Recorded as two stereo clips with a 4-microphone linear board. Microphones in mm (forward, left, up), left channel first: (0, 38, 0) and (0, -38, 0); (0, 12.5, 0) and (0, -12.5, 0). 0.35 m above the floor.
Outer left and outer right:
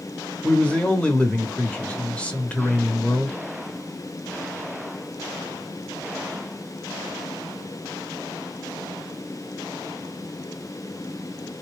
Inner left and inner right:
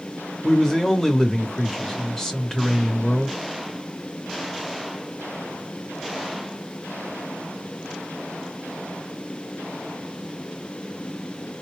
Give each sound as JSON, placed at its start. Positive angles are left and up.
{"t": 0.4, "sound": "a man speaking", "side_deg": 15, "distance_m": 0.9}